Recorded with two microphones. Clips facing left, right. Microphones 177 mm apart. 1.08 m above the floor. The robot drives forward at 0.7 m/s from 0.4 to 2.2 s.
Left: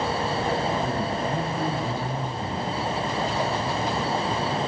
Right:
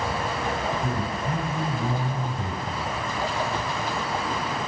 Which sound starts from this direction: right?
A man speaking, at 0.8 s.